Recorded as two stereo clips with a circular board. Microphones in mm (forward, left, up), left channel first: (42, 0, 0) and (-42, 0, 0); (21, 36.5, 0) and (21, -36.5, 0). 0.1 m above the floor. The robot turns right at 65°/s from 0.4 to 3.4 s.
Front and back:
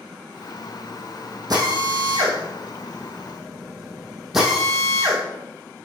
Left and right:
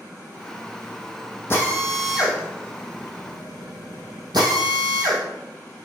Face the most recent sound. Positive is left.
turn(degrees=-90)